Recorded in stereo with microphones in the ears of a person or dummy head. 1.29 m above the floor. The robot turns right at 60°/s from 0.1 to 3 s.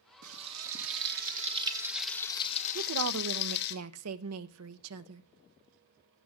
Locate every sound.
0.2 s frying: 110° right, 1.9 m; by 3.8 s 55° left, 1.9 m
2.8 s a woman speaking: 55° right (ahead or behind), 0.8 m; by 5.2 s 70° right (ahead or behind), 0.8 m